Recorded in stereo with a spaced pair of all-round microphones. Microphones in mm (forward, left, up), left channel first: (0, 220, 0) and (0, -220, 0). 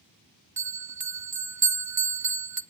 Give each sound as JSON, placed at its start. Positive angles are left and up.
{"t": 0.6, "sound": "a bell", "side_deg": -40, "distance_m": 0.6}